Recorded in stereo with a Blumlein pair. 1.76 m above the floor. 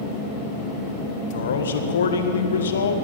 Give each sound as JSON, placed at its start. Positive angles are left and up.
{"t": 1.3, "sound": "a man speaking", "azimuth_deg": 65, "distance_m": 1.7}